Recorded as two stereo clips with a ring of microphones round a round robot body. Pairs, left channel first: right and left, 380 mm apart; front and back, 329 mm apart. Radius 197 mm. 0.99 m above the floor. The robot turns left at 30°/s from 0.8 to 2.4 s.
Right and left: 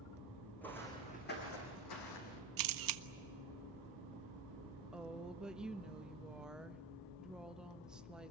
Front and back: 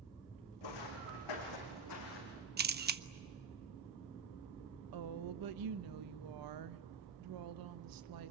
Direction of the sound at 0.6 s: 5° right.